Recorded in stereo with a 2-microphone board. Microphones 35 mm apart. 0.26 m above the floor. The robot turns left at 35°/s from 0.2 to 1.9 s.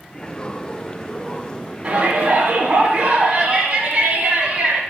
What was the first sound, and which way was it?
A shout, 45° right (ahead or behind).